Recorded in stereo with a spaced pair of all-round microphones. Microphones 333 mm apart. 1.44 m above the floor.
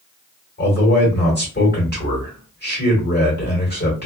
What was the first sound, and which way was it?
A man speaking, 30° left (ahead or behind).